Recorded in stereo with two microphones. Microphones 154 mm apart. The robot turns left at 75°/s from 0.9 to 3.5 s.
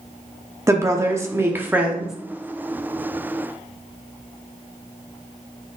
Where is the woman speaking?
20° right (ahead or behind), 0.7 m; by 2.1 s centre (ahead or behind), 0.7 m.